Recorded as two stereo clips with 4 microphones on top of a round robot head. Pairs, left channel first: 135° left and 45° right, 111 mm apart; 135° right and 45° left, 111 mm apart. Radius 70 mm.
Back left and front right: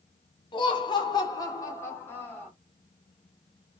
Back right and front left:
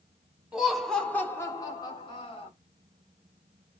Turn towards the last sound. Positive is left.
turn(degrees=-155)